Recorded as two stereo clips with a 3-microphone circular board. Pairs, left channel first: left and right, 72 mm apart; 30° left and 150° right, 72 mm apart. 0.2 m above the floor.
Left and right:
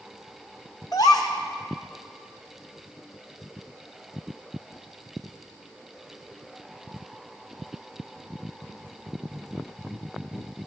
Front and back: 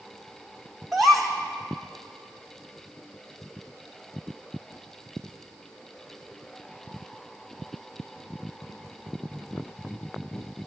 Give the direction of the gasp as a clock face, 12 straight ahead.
8 o'clock.